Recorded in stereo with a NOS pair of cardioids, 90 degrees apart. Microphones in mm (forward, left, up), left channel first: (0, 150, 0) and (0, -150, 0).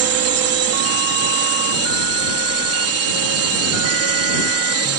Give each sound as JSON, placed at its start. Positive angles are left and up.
{"t": 0.0, "sound": "a drone", "azimuth_deg": -50}